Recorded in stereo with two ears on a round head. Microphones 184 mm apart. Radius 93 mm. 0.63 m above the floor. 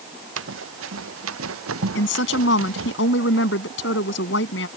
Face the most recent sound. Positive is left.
turn(degrees=65)  # may be behind; listen again after turning